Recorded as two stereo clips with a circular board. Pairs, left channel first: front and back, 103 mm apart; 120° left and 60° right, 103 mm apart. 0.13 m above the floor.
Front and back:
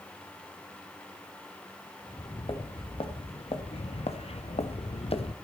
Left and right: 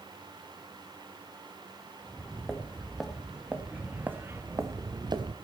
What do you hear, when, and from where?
2.0 s footsteps: 35° left, 2.5 m; by 5.3 s 20° right, 1.0 m